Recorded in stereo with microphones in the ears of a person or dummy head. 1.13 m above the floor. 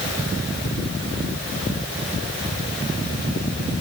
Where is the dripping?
I don't hear dripping.